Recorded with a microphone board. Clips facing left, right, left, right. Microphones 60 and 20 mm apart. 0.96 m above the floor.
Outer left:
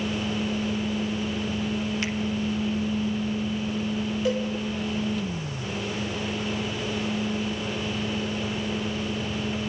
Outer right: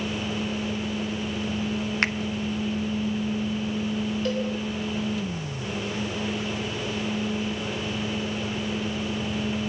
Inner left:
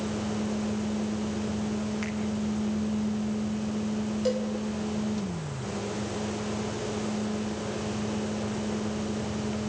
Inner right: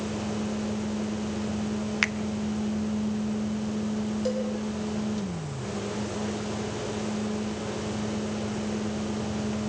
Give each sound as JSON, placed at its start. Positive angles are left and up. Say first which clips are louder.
{"t": 2.0, "sound": "a finger snap", "louder": "outer right 4 dB, inner right 8 dB", "side_deg": -55, "distance_m": 1.0}
{"t": 4.2, "sound": "a cowbell", "louder": "outer left 3 dB, inner left 2 dB", "side_deg": 10, "distance_m": 6.0}